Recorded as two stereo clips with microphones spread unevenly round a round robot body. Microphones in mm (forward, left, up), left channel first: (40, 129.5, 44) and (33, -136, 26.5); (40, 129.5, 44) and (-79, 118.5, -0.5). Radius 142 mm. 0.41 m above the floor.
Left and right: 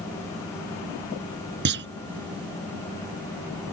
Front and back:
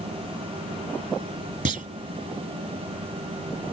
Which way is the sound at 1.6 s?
145° right.